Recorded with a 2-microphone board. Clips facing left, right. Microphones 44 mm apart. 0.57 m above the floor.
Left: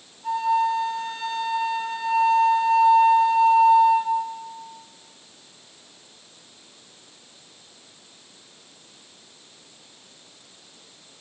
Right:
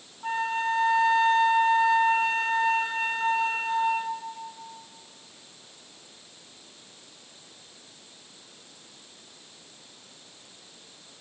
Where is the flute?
45° right (ahead or behind), 1.6 m.